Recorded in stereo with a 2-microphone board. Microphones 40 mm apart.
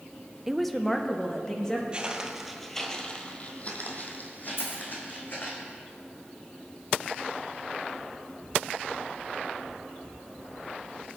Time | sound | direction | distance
0.5 | a woman speaking | 10° right (ahead or behind) | 0.7 m
1.9 | footsteps | 25° right (ahead or behind) | 1.7 m
4.6 | a dropped coin | 75° left (ahead or behind) | 5 m